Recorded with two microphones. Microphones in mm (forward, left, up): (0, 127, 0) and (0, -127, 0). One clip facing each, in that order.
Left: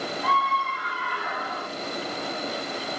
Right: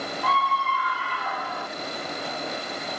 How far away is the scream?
About 4 m.